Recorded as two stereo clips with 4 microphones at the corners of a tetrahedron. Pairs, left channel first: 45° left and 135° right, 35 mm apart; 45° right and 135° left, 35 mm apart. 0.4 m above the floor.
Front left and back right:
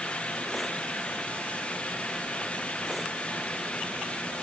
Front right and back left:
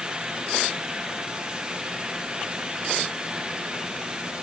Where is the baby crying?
I don't hear a baby crying.